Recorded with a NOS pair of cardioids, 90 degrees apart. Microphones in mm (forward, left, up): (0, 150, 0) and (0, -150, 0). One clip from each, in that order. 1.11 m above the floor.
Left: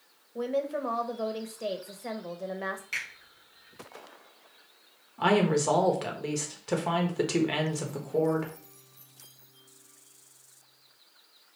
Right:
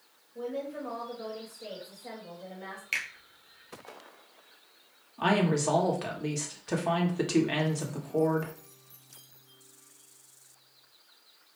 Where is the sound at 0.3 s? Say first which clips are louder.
Left 6 dB; 60° left, 1.1 m.